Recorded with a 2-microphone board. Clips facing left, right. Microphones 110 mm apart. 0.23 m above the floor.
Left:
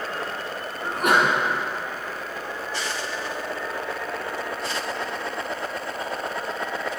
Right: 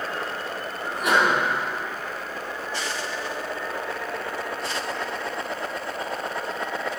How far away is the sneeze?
About 2 m.